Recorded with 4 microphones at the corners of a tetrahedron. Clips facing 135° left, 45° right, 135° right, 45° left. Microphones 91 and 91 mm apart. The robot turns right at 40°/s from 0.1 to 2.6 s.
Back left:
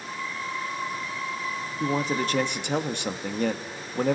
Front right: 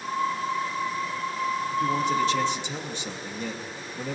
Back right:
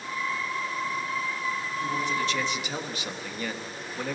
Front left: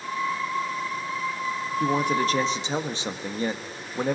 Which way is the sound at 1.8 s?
75° left.